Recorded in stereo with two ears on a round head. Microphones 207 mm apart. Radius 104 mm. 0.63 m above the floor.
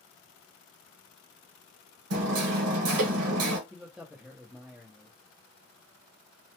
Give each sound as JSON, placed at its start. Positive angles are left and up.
{"t": 2.1, "sound": "hammering", "side_deg": -70, "distance_m": 0.9}
{"t": 3.7, "sound": "a man speaking", "side_deg": -5, "distance_m": 0.7}